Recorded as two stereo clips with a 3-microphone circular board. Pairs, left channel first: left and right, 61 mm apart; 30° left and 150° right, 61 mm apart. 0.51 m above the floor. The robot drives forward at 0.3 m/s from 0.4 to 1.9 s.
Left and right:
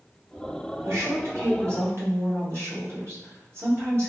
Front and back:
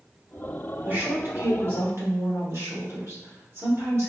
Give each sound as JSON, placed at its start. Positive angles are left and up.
{"t": 0.8, "sound": "a woman speaking", "azimuth_deg": -100, "distance_m": 1.1}